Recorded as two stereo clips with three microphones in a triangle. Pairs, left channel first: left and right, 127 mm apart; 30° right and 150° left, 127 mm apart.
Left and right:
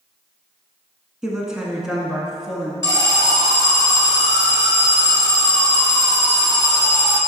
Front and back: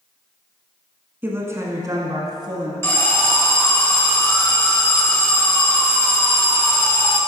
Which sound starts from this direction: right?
An alarm, at 2.8 s.